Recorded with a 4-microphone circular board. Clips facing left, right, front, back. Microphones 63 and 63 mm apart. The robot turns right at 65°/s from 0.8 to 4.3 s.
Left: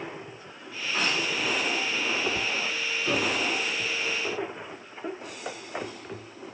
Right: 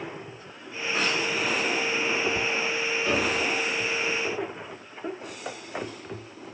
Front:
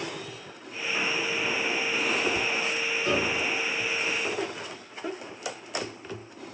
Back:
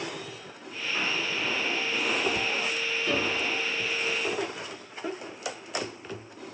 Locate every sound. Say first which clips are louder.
3.0 s a piano: right 1 dB, front 2 dB; 25° right, 1.3 m; by 3.4 s straight ahead, 1.3 m